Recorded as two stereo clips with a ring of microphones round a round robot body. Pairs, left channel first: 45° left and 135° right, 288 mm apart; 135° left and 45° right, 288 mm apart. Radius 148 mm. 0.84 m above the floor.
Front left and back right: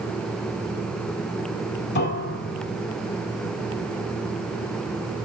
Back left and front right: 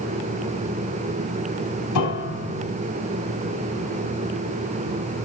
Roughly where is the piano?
Left.